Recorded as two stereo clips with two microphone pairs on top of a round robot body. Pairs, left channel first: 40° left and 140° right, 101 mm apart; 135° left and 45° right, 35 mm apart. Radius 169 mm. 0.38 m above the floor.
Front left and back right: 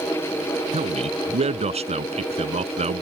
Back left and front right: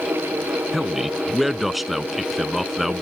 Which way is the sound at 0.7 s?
130° right.